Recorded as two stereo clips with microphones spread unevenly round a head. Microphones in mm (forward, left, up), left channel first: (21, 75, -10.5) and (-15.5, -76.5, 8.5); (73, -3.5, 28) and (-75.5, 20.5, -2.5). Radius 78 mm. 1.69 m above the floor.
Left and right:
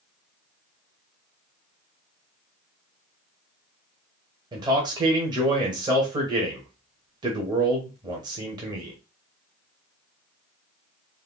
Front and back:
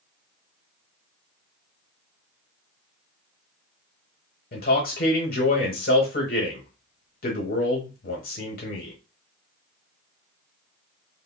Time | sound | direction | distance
4.5 | a man speaking | 40° right | 0.8 m